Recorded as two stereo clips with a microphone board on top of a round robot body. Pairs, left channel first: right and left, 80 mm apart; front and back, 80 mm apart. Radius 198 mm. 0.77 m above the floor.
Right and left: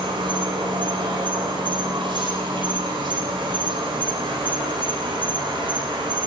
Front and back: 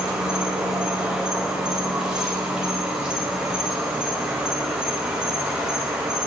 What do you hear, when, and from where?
0.0 s an insect: 100° left, 4.5 m